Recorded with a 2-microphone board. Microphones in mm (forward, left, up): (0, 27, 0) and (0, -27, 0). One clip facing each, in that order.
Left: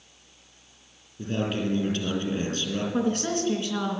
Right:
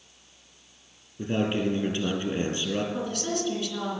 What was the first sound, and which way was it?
A man speaking, 25° right (ahead or behind).